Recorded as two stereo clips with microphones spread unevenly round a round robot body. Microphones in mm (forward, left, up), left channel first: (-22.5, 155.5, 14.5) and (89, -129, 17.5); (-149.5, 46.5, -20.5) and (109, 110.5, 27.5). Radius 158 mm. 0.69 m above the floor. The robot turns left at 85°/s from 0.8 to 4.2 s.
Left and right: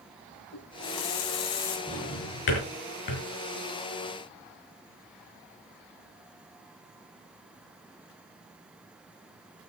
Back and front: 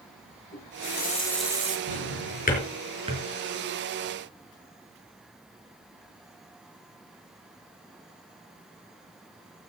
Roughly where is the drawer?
Behind.